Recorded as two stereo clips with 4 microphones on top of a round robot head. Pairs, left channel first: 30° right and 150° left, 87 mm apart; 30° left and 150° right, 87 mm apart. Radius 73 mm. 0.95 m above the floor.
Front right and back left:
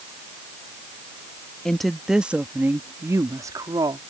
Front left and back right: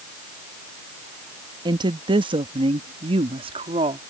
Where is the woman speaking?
115° right; by 4.0 s 165° right.